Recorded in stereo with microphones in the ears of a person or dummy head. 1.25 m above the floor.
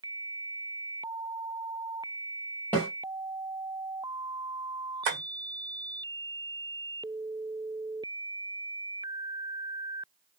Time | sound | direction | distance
2.7 | a snare drum | 10° left (ahead or behind) | 1.2 m
5.0 | tapping | 60° right (ahead or behind) | 1.5 m